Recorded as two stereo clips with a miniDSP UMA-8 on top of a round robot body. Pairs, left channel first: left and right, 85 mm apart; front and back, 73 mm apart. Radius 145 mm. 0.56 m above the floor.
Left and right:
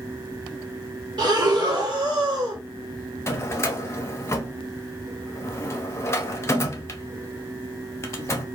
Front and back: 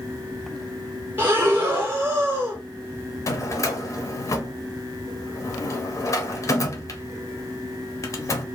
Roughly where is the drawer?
Ahead left.